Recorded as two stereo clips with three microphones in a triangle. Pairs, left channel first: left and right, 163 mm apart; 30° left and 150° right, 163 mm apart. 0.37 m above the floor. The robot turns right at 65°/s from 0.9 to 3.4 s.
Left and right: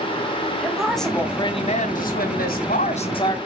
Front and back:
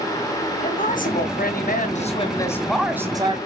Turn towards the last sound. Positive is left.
turn(degrees=160)